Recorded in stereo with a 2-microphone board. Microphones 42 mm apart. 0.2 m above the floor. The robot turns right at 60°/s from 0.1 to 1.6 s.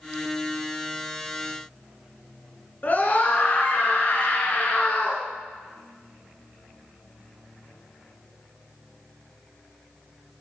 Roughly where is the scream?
Left.